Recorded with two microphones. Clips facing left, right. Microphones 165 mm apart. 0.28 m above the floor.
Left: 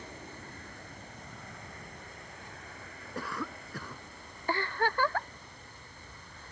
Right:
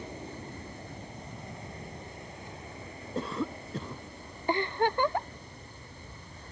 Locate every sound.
0.0 s an aircraft: 20° right (ahead or behind); by 6.5 s 25° right (ahead or behind)
3.1 s a cough: 25° right (ahead or behind)
4.5 s a giggle: 20° right (ahead or behind)